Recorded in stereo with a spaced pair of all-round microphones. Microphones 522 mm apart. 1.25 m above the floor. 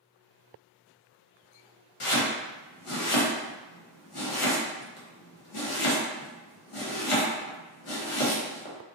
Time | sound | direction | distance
2.0 | chopping | 70° left (ahead or behind) | 0.8 m